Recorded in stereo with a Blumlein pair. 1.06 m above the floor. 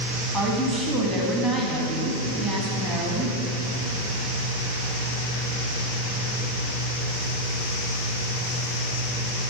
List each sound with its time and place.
0.3 s a woman speaking: 5° left, 1.7 m